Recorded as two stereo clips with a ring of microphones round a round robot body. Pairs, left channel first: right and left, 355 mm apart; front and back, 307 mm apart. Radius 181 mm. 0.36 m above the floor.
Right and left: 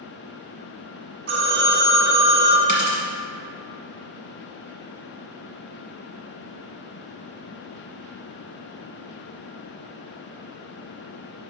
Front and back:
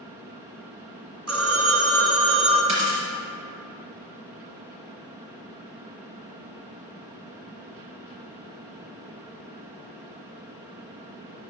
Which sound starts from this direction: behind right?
A dropped coin, at 2.7 s.